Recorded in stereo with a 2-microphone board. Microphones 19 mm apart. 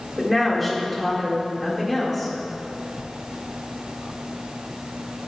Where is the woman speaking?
Centre (ahead or behind), 1.9 m.